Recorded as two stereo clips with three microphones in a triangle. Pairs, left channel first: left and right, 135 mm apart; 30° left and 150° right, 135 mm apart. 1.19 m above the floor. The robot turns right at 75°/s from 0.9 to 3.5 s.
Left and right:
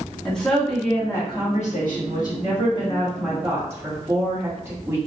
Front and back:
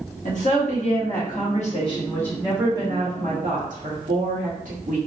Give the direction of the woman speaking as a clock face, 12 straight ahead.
12 o'clock.